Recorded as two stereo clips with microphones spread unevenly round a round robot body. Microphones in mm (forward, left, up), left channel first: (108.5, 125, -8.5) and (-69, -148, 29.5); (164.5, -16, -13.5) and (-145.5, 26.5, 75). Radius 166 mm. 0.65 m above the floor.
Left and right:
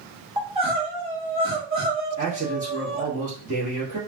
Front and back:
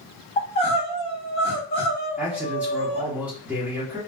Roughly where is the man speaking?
Right.